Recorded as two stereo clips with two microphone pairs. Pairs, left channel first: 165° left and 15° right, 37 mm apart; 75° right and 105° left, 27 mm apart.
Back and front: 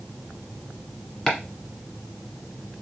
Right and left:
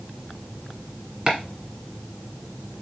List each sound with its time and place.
1.3 s chopping: 80° left, 1.3 m